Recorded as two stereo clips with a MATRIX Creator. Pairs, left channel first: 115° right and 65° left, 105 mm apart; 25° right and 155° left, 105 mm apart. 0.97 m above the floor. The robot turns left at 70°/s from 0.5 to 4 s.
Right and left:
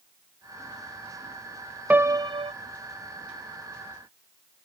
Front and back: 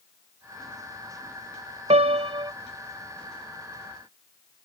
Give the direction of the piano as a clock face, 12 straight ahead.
7 o'clock.